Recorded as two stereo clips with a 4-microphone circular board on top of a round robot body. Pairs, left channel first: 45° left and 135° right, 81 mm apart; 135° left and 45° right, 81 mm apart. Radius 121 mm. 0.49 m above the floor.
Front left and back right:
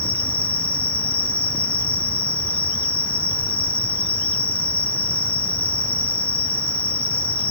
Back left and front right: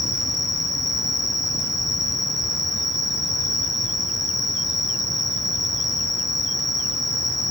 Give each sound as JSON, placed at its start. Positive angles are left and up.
{"t": 0.0, "sound": "an insect", "azimuth_deg": 110, "distance_m": 2.5}